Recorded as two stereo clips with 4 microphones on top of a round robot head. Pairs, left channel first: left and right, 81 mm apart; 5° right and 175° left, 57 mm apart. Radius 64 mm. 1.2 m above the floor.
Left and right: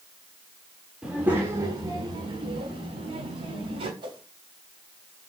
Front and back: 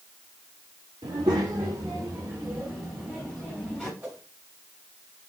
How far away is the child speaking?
About 1.7 m.